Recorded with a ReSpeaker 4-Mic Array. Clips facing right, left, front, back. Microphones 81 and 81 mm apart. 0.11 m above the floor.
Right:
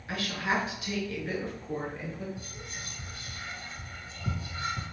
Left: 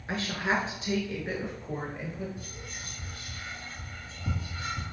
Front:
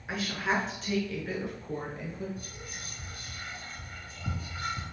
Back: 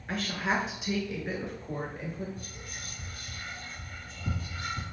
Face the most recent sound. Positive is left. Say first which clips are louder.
# even, even
turn(degrees=-55)